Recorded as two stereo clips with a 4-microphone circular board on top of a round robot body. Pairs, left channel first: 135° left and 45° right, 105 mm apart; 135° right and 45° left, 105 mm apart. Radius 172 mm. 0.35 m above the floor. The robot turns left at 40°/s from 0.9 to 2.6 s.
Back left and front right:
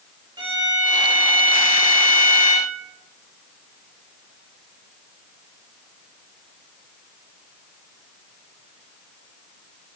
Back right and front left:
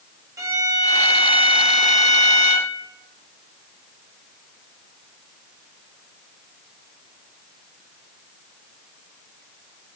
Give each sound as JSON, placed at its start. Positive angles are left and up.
{"t": 0.4, "sound": "a violin", "azimuth_deg": -10, "distance_m": 2.0}